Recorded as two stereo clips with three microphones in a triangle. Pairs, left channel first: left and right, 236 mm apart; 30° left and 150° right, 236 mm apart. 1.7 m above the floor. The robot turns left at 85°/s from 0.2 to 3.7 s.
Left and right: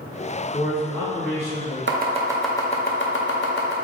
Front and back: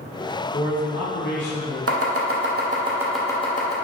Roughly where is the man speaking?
Ahead left.